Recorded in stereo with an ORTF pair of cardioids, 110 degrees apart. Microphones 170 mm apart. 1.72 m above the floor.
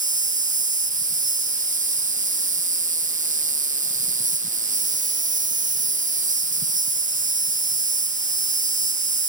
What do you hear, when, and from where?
0.0 s an insect: 50° right